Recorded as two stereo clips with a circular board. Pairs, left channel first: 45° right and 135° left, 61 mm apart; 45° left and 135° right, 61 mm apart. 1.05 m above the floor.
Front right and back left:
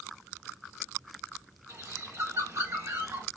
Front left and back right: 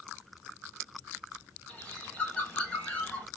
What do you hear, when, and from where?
1.7 s a bird: 110° left, 1.7 m